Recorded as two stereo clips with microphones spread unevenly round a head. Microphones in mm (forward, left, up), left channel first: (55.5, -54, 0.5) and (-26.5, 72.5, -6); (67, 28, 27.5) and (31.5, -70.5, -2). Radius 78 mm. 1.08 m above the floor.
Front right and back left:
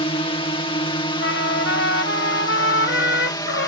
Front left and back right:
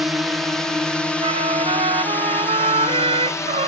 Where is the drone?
55° right; by 3.7 s 5° left.